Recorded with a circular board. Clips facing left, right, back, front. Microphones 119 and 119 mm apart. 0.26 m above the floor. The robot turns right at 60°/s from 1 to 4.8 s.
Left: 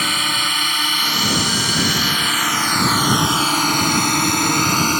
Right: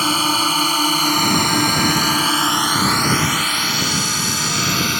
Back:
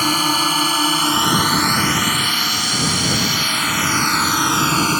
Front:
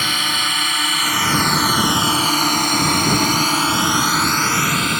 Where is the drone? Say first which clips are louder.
Right 5 dB, back 6 dB; 140° right; by 5.0 s 130° left.